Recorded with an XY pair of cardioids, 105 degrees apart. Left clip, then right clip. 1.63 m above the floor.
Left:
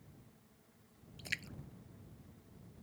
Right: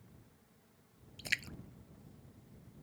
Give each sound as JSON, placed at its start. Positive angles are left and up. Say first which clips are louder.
{"t": 1.2, "sound": "a splash", "louder": "right 5 dB", "azimuth_deg": -35}